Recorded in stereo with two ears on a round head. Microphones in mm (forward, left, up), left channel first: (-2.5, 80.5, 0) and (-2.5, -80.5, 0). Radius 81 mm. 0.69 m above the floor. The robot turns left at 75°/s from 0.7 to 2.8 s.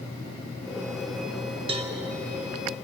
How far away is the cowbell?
About 0.6 m.